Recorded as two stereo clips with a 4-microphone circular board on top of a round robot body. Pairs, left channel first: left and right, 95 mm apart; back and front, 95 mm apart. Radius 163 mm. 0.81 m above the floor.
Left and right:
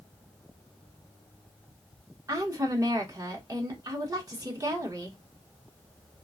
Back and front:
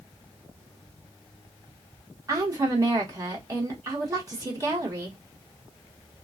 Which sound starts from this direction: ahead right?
A woman speaking, at 2.3 s.